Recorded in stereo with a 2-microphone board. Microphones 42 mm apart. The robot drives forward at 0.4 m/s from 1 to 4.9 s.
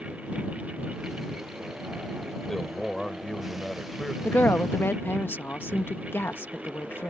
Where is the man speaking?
15° left (ahead or behind); by 4.1 s 10° left (ahead or behind).